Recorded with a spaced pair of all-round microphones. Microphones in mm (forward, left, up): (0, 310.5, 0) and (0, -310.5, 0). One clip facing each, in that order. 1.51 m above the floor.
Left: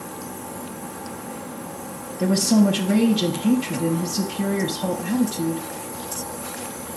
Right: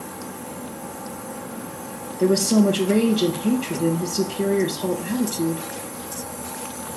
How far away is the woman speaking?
About 1.0 m.